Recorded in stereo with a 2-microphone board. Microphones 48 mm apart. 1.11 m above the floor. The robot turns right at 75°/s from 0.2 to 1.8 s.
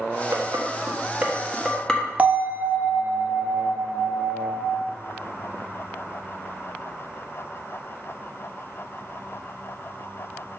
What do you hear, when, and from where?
0.3 s dishes clattering: 80° right, 1.1 m; by 2.1 s 10° left (ahead or behind), 1.1 m
2.2 s a bell: 30° right (ahead or behind), 0.8 m